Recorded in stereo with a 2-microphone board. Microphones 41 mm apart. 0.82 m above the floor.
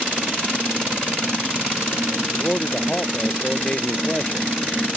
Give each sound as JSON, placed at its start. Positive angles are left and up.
{"t": 2.3, "sound": "a man speaking", "side_deg": 25}